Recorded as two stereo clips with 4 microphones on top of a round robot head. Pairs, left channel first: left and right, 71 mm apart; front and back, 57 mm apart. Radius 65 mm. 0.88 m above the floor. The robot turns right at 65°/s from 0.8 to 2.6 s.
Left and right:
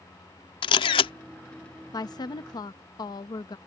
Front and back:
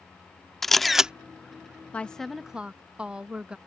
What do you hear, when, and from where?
0.6 s a camera shutter: 90° left; by 1.1 s 110° left
1.9 s a woman speaking: 70° left; by 3.6 s 110° left